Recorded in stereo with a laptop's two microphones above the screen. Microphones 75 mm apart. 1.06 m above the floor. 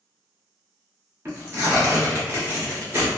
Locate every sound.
1.2 s tearing paper: 30° right (ahead or behind), 1.1 m